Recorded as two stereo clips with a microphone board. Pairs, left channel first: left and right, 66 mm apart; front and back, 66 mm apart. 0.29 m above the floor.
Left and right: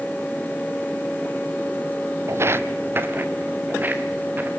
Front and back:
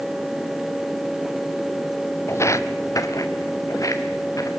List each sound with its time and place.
2.3 s footsteps: 45° right, 0.5 m; by 4.5 s 30° right, 2.5 m